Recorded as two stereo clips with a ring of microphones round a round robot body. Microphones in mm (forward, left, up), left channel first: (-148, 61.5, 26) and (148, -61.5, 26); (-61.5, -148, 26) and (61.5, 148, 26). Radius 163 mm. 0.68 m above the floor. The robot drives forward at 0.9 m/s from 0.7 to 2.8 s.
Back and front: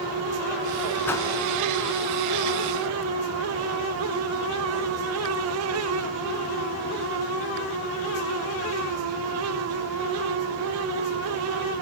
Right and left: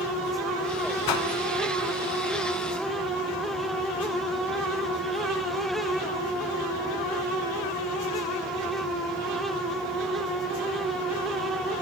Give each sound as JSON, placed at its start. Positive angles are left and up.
{"t": 1.1, "sound": "a whoosh", "azimuth_deg": -120, "distance_m": 1.0}